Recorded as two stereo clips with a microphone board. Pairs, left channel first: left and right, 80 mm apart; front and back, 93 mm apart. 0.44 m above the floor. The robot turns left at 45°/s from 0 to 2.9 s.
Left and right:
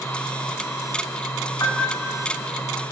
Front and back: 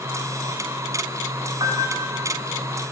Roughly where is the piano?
Behind left.